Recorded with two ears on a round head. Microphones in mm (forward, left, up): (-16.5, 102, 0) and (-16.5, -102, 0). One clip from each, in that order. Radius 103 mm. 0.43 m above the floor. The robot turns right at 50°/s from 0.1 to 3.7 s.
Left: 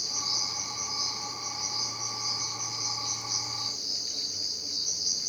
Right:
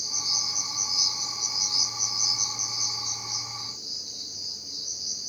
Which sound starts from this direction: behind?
An insect, at 0.0 s.